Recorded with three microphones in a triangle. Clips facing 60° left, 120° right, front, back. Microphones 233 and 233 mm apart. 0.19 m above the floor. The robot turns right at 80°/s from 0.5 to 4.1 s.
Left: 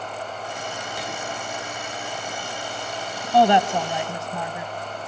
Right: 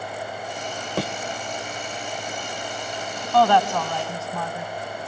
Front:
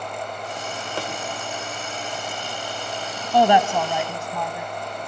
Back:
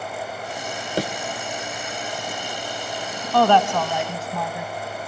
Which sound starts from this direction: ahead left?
A woman speaking, at 3.3 s.